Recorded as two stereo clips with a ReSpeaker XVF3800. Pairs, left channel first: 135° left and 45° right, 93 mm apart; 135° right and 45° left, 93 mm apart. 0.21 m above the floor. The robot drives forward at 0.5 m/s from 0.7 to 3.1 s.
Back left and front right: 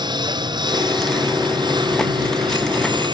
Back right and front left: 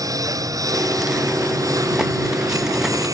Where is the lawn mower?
10° right.